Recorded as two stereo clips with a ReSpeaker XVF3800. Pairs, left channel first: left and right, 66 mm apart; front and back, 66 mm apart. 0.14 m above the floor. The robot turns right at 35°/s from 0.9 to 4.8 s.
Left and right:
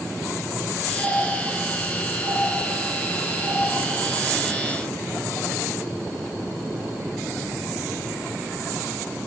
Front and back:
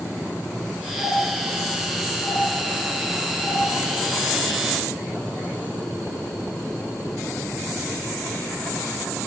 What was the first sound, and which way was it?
A doorbell, 45° left.